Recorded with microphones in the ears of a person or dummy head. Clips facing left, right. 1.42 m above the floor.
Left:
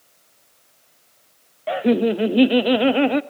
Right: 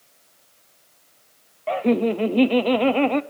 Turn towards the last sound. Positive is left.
turn(degrees=15)  # may be behind; listen again after turning